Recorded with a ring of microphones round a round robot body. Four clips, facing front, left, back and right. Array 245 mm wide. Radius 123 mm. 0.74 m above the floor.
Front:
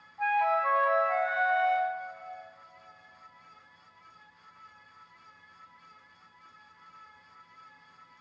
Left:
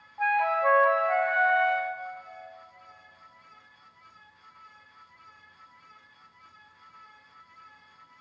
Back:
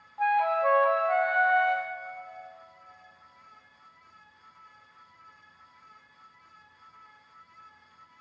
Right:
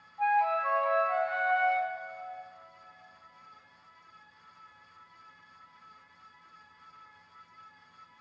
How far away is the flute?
About 1.4 m.